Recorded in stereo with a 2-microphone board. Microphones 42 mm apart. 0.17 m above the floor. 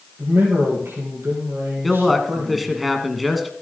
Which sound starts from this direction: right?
A man speaking, at 0.2 s.